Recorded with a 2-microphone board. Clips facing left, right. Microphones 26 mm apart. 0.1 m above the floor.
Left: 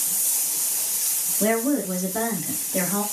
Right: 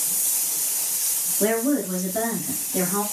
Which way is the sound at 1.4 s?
20° right (ahead or behind).